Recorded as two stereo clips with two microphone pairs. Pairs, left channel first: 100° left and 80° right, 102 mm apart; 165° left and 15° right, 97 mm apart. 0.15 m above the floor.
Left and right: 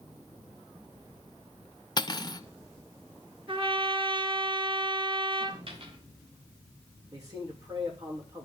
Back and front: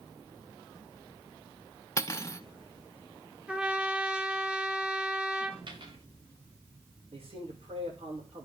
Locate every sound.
2.0 s cutlery clinking: 120° left, 1.0 m
3.5 s a trumpet: 95° right, 1.8 m
5.7 s a dropped coin: 50° right, 4.5 m
7.1 s a man speaking: 25° right, 9 m